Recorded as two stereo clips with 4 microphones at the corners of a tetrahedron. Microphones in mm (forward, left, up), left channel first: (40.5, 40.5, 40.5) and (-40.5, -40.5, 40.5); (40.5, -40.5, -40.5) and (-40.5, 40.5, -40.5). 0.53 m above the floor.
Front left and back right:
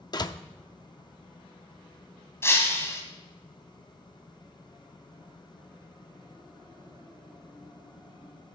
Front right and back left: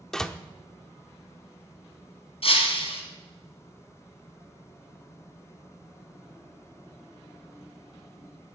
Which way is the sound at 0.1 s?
35° left.